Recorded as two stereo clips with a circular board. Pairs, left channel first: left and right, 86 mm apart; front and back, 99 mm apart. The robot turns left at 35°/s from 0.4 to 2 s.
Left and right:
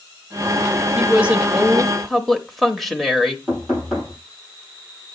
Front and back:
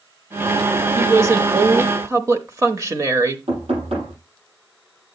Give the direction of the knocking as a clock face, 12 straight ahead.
6 o'clock.